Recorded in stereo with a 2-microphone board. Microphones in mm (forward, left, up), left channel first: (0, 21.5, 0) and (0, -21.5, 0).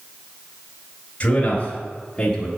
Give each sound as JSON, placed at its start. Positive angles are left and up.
{"t": 1.2, "sound": "a man speaking", "side_deg": 30, "distance_m": 1.8}